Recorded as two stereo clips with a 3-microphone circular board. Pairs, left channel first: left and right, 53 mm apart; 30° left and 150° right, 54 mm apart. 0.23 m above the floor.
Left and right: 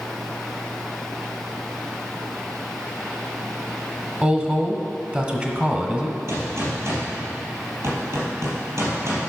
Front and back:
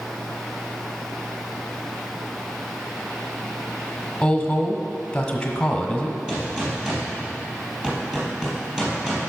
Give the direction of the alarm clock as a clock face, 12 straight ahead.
No alarm clock in this recording.